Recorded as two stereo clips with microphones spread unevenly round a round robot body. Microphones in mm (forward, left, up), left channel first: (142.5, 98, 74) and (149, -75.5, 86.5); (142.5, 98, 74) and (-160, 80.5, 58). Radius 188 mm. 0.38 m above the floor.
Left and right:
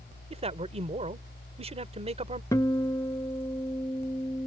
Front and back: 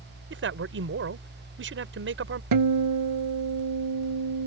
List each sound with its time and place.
0.3 s a man speaking: 140° right
2.5 s a guitar: 170° left